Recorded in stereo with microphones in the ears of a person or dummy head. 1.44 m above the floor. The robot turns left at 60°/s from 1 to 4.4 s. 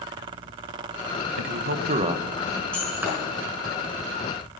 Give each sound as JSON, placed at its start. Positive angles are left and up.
{"t": 1.4, "sound": "a man speaking", "azimuth_deg": -115, "distance_m": 1.2}
{"t": 2.7, "sound": "breaking glass", "side_deg": 5, "distance_m": 5.5}